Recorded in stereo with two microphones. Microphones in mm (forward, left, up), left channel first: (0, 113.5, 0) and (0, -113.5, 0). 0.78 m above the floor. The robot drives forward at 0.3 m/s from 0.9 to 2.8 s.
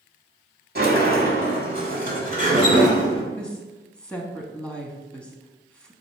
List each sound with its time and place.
0.8 s a sliding door: 50° right (ahead or behind), 1.7 m; by 3.2 s 40° right (ahead or behind), 2 m
3.4 s a woman speaking: 5° left (ahead or behind), 1.2 m